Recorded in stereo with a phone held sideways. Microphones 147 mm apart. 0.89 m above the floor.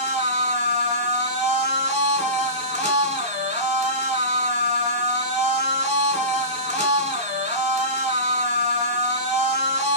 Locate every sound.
0.0 s a machine running: 50° right (ahead or behind), 1.3 m